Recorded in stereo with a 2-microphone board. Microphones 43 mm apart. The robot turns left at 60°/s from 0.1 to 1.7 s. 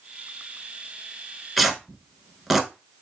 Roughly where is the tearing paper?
Centre.